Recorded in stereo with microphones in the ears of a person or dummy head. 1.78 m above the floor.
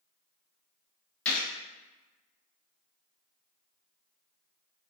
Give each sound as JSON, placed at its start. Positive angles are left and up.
{"t": 1.2, "sound": "a gunshot", "side_deg": 5, "distance_m": 0.6}